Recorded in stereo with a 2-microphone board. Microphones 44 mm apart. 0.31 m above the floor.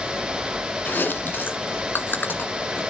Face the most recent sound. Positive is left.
turn(degrees=50)  # may be behind; listen again after turning